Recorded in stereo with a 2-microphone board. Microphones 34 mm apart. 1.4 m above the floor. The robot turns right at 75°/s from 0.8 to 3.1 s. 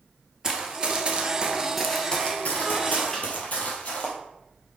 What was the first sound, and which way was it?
Running footsteps, 20° right (ahead or behind).